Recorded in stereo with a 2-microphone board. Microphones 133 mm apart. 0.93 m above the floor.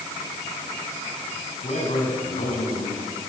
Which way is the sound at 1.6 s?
60° left (ahead or behind).